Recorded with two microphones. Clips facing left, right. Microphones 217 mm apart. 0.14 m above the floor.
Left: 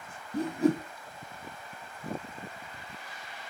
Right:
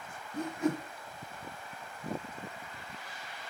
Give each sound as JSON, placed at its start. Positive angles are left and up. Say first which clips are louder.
{"t": 0.3, "sound": "a whoosh", "louder": "left 6 dB", "side_deg": 35, "distance_m": 0.8}